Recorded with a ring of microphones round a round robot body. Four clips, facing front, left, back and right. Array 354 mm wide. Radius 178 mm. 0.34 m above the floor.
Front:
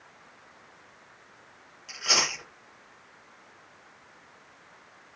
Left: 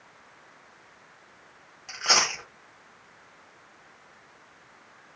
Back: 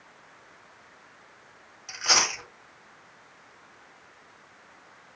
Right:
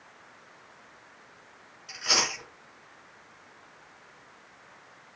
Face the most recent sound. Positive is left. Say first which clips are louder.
# left 4 dB, back 3 dB
turn(degrees=105)